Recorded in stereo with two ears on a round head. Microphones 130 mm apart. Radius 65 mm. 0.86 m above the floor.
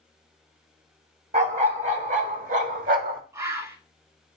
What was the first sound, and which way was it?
A dog barking, 55° right (ahead or behind).